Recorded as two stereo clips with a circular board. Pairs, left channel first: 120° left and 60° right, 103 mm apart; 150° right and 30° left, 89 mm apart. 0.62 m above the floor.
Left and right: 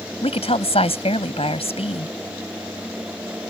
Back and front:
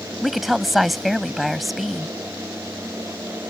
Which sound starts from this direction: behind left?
A woman speaking, at 0.2 s.